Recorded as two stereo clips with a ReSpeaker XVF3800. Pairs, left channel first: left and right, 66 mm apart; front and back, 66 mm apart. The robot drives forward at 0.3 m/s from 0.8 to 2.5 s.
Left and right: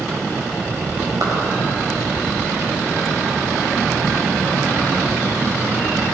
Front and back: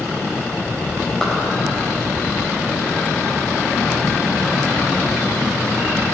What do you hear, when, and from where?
1.2 s a clap: 75° right, 4.5 m